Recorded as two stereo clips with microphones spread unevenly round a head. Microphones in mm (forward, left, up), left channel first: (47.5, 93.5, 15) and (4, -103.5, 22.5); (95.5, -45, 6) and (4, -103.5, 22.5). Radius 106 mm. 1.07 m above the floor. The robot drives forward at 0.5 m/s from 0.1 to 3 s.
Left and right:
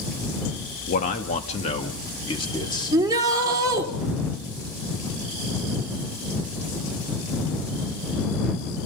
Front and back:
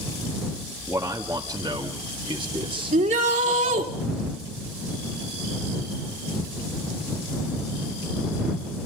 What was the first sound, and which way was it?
A man speaking, 130° left.